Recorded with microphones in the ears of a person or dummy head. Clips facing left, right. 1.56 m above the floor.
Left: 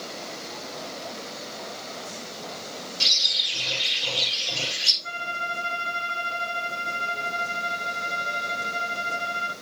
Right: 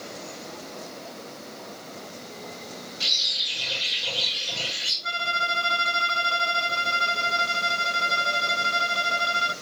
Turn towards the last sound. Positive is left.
turn(degrees=-60)  # may be behind; listen again after turning